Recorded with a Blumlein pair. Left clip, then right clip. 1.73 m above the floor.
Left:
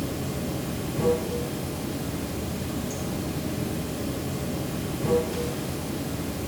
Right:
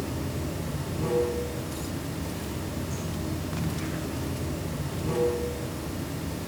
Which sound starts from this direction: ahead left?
Running water, at 0.0 s.